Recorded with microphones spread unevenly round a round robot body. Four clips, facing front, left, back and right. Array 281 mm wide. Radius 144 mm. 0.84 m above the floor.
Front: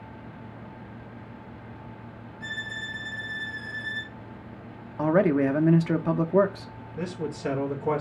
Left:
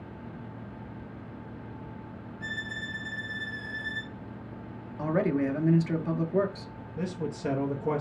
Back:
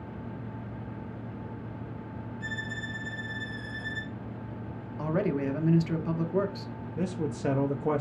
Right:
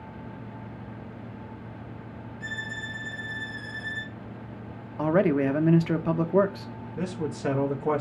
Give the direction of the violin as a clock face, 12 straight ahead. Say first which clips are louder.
Right 1 dB, front 3 dB; 7 o'clock.